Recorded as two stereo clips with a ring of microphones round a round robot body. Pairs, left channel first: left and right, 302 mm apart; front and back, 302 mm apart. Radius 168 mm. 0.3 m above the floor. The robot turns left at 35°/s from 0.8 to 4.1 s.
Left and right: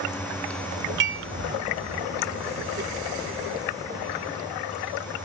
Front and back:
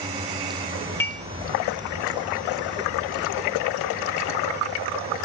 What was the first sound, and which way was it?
Dishes clattering, 80° right.